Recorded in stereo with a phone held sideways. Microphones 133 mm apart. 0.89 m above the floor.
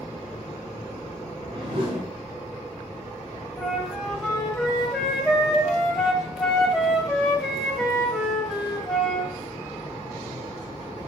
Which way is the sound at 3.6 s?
Centre (ahead or behind).